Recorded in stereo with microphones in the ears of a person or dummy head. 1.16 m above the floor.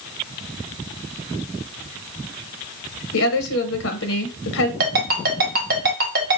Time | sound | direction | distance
3.1 | a woman speaking | 65° left (ahead or behind) | 0.8 m
4.8 | a ringtone | 55° right (ahead or behind) | 1.3 m